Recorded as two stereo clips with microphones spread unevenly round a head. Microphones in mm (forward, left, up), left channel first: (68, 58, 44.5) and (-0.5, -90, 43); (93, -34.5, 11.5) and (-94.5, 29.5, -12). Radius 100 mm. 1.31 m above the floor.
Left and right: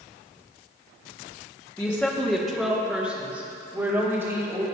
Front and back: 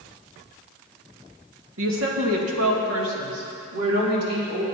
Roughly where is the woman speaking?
Behind left.